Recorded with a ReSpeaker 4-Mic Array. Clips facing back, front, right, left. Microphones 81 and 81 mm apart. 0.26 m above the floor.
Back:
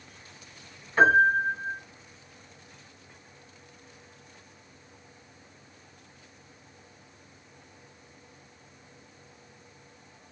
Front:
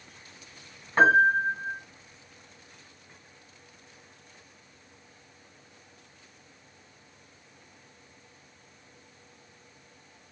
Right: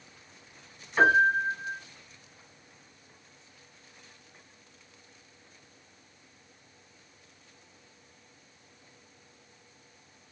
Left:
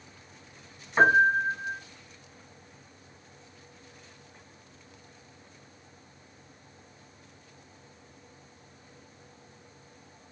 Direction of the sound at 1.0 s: 35° left.